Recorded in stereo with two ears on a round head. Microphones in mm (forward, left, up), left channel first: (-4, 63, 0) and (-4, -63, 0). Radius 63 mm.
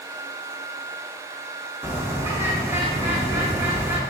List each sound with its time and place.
1.8 s a bird: 15° right (ahead or behind), 0.6 m